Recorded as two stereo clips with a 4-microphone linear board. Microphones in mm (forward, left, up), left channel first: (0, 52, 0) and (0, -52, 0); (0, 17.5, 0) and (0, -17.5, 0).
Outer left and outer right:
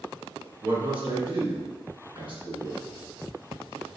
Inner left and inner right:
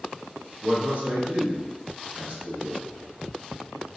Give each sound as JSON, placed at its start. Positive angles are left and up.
{"t": 0.6, "sound": "a man speaking", "side_deg": -55, "distance_m": 2.0}